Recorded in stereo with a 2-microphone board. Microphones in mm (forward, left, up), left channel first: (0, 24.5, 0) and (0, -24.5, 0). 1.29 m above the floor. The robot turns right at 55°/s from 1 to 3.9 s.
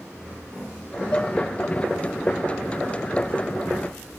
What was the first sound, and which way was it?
Dishes clattering, 25° left (ahead or behind).